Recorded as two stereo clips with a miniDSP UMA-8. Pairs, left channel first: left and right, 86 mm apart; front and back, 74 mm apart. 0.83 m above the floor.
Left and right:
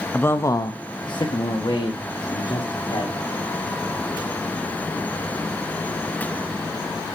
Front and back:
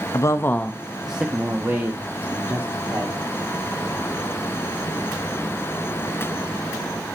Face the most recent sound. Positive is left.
turn(degrees=130)